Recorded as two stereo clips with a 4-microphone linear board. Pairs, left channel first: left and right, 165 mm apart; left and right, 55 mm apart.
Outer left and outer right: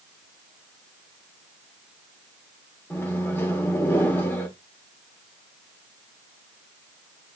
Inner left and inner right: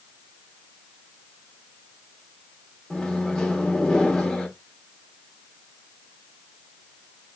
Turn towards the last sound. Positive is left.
turn(degrees=15)  # may be behind; listen again after turning